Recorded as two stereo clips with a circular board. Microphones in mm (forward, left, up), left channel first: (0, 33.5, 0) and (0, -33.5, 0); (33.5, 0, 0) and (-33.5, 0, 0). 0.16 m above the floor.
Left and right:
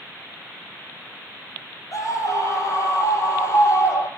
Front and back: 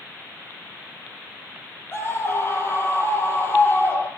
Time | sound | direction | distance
1.9 | a scream | 55° left | 5 m